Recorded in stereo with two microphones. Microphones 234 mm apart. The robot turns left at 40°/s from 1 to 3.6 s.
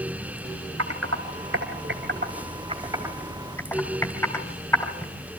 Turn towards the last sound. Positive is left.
turn(degrees=10)  # may be behind; listen again after turning